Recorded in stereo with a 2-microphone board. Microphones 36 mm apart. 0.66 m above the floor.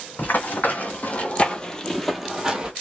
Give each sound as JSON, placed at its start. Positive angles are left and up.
{"t": 0.2, "sound": "running footsteps", "side_deg": 55, "distance_m": 1.3}